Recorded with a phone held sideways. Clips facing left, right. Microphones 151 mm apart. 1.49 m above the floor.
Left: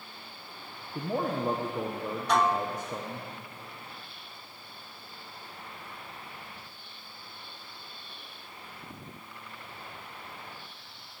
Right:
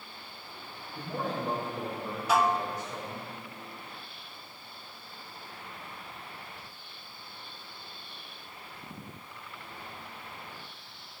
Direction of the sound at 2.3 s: 5° right (ahead or behind).